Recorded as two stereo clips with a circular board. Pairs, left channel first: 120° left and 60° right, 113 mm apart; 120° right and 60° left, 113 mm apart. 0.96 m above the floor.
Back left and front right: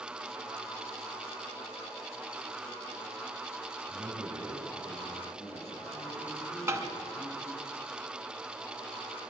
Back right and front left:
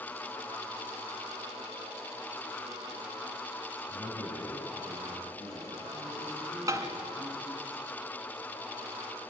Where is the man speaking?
130° left, 7 m; by 7.7 s 135° left, 10.5 m.